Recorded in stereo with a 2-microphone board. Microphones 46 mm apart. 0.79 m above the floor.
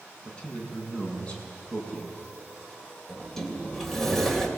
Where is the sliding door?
5° left (ahead or behind), 2.5 m.